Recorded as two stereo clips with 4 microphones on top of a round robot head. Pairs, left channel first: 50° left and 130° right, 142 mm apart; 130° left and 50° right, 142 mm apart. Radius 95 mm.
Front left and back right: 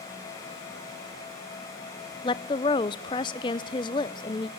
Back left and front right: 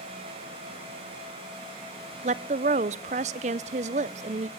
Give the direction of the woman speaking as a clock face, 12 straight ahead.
12 o'clock.